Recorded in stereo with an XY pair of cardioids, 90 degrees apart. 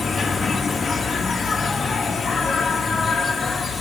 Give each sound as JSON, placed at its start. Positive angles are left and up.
{"t": 0.0, "sound": "an insect", "azimuth_deg": 40, "distance_m": 1.0}